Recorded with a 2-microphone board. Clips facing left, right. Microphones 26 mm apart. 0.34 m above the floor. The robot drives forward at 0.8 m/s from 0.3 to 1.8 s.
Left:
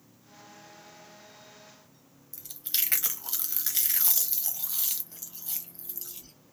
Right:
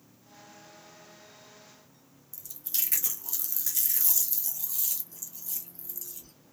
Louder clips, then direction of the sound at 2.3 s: Left 4 dB; 55° left (ahead or behind).